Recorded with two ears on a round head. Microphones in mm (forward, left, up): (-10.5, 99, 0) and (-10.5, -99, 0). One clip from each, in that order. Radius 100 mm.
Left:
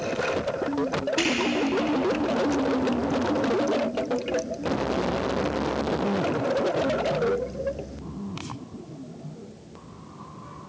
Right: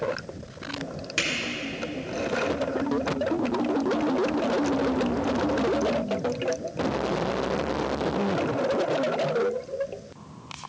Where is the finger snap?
55° right (ahead or behind), 3.5 m.